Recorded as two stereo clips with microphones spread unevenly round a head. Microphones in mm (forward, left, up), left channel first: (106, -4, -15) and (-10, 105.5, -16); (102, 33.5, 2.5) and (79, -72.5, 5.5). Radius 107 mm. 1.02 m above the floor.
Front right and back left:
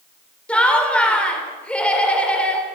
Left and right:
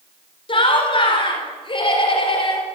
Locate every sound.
0.5 s laughter: 40° left, 3.5 m